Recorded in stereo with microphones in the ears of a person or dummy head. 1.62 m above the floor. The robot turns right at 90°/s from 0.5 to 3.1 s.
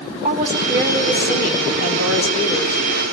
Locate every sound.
0.2 s a woman speaking: 35° right, 4 m; by 2.8 s 170° left, 4 m